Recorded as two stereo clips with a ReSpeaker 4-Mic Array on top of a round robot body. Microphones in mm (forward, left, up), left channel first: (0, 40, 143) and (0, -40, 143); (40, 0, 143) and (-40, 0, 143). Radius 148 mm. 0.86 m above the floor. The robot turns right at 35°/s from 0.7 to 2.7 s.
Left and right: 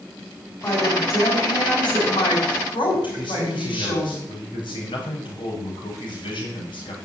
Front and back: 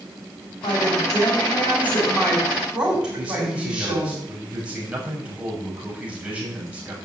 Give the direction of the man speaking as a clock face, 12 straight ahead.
9 o'clock.